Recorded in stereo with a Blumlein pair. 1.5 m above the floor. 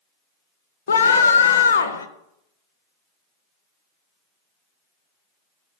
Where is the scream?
70° left, 0.6 m.